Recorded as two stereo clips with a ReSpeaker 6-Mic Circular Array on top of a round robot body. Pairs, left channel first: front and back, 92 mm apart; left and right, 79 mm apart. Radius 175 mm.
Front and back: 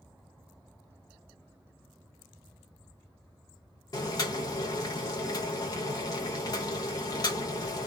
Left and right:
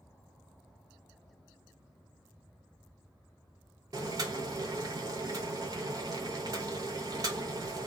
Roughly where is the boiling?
Ahead right.